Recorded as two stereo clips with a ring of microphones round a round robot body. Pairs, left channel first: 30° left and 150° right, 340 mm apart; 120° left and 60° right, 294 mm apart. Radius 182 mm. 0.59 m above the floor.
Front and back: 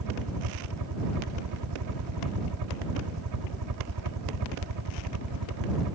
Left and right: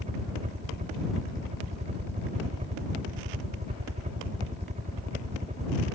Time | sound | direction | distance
0.0 | a helicopter | 130° right | ?